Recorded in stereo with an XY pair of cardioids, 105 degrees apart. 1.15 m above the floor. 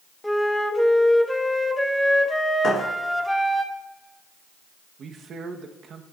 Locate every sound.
0.2 s a flute: 5° left, 1.0 m
2.6 s a thud: 60° left, 6 m
5.0 s a man speaking: 60° right, 1.3 m